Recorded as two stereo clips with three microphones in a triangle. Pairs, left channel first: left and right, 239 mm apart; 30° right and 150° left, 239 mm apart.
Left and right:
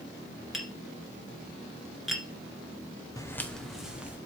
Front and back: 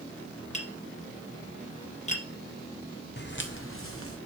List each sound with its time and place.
0.5 s tapping: straight ahead, 1.9 m
3.2 s footsteps: 15° left, 1.2 m; by 4.2 s 5° right, 2 m